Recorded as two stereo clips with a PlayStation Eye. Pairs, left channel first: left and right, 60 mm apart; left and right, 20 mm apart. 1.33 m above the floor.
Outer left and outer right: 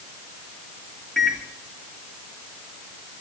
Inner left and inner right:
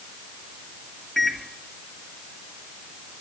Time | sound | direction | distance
1.2 | a microwave | 15° left (ahead or behind) | 2.5 m